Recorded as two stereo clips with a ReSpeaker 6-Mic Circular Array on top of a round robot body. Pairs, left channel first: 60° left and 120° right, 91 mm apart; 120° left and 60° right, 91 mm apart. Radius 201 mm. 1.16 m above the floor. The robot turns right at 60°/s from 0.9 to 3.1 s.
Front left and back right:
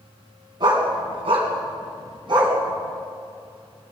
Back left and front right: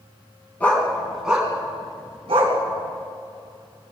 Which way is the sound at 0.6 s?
165° right.